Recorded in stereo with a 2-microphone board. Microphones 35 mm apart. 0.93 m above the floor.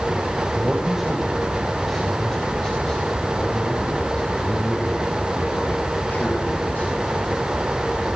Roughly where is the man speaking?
Right.